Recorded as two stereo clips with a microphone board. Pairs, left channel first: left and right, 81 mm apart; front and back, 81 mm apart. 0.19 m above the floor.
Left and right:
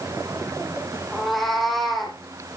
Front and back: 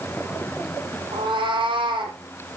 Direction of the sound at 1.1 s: Straight behind.